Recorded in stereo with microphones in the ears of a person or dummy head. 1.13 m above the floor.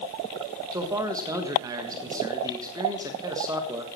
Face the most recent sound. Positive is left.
turn(degrees=-15)  # may be behind; listen again after turning